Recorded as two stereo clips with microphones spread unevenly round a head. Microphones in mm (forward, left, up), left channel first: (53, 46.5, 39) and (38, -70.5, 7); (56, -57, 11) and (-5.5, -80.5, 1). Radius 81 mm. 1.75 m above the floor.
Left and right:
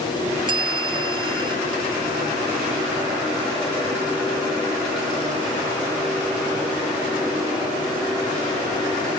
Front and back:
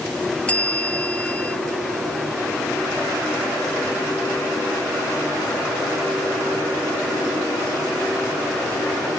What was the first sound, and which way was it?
A bell, 45° right.